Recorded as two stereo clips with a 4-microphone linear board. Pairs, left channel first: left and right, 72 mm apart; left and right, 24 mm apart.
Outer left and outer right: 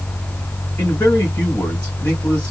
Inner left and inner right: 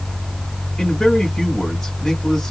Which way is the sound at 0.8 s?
15° left (ahead or behind).